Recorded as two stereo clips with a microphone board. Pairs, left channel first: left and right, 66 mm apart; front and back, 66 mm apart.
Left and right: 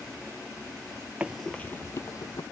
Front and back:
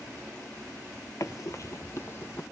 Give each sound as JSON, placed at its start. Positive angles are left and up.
{"t": 1.2, "sound": "running footsteps", "azimuth_deg": -25, "distance_m": 0.5}